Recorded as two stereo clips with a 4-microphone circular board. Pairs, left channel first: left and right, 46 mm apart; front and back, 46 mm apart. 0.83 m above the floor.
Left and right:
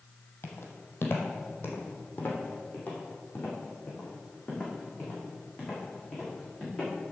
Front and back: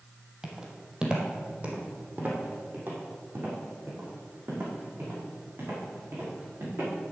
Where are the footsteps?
105° left, 1.7 m; by 6.9 s 160° left, 4.5 m.